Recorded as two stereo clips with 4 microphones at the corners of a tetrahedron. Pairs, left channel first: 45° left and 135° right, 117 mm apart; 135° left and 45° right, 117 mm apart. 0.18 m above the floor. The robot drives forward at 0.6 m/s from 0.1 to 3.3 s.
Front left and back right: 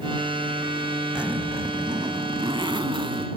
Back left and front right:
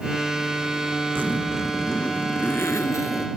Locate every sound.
1.1 s a zipper: 65° right; by 3.3 s 170° right